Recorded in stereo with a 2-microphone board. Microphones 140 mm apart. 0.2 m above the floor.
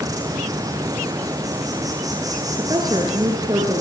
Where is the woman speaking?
25° right (ahead or behind), 4 m.